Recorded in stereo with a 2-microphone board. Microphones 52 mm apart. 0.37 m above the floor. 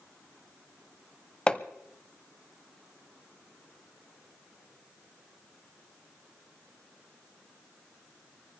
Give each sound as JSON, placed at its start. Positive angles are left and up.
{"t": 1.5, "sound": "hammering", "side_deg": 15, "distance_m": 0.8}